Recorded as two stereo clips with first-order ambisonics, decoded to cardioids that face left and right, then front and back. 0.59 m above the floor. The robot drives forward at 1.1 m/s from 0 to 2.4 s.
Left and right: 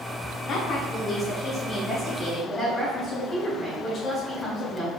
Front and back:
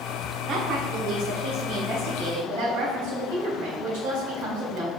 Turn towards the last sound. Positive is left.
turn(degrees=160)